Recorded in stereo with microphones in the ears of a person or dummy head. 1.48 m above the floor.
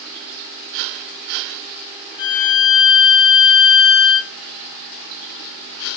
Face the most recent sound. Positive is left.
turn(degrees=50)  # may be behind; listen again after turning